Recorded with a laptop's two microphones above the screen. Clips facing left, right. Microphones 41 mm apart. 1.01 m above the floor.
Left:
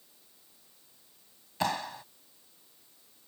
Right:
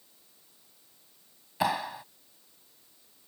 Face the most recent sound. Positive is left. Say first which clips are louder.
# right 3 dB
turn(degrees=-10)  # may be behind; listen again after turning